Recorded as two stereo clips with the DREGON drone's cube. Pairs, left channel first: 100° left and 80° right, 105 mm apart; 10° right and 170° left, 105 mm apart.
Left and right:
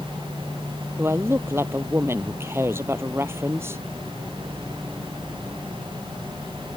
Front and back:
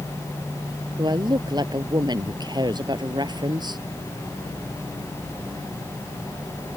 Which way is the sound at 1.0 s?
145° right.